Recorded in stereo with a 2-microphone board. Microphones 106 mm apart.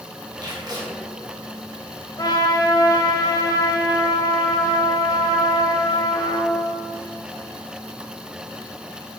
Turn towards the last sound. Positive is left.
turn(degrees=40)  # may be behind; listen again after turning